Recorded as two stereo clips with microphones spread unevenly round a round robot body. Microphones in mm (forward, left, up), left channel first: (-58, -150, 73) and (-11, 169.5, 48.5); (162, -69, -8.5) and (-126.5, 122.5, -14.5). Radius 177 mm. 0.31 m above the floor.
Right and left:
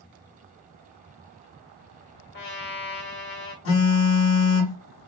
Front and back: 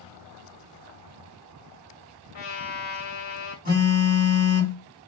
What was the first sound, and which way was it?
A trumpet, 50° right.